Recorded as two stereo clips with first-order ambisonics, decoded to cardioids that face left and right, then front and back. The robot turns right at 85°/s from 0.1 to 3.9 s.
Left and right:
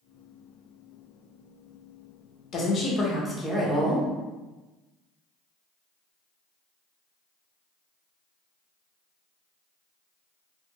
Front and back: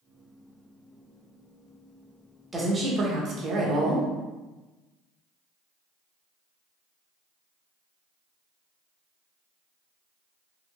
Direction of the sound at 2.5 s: 105° left.